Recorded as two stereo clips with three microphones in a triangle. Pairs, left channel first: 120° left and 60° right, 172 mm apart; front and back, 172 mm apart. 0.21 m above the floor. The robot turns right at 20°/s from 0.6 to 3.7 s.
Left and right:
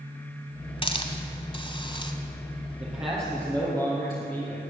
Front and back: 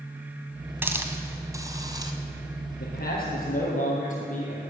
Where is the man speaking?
10° left, 3.5 m; by 4.6 s 25° left, 3.5 m.